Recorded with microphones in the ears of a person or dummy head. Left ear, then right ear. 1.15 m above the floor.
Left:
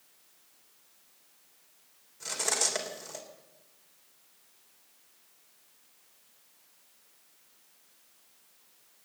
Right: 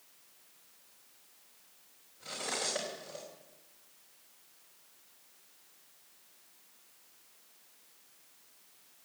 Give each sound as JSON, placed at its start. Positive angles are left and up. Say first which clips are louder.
{"t": 2.2, "sound": "cutlery clinking", "louder": "left 6 dB", "side_deg": 65, "distance_m": 3.0}